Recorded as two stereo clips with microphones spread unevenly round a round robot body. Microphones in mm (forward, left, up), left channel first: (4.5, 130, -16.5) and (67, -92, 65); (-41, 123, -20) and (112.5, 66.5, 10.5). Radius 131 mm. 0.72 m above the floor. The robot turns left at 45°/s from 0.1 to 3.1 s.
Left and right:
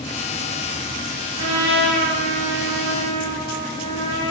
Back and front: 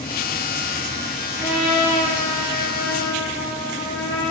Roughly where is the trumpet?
Right.